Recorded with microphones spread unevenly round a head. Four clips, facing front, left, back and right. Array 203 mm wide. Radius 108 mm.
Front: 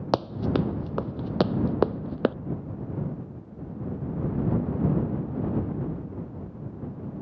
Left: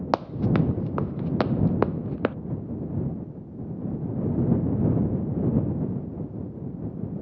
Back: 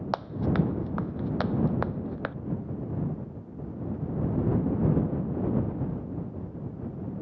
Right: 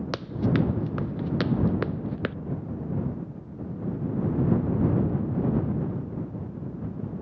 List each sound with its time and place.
0.1 s running footsteps: 25° left